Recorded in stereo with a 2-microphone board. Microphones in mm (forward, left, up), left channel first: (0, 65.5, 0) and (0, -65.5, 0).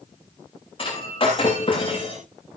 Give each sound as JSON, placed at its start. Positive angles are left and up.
{"t": 0.8, "sound": "breaking glass", "side_deg": 40, "distance_m": 8.0}